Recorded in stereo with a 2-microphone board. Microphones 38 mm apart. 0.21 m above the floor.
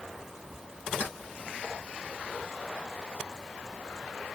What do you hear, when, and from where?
1.0 s keys jangling: 70° left (ahead or behind), 2.0 m